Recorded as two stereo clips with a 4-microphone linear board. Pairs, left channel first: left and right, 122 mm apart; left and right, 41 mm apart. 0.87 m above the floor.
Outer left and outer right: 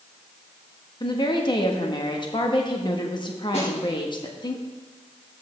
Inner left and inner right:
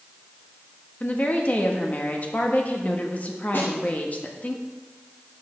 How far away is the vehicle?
No vehicle in this recording.